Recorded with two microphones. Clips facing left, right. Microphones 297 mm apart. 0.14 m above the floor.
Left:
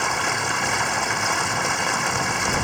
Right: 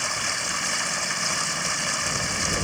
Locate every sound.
0.0 s running water: 70° left (ahead or behind)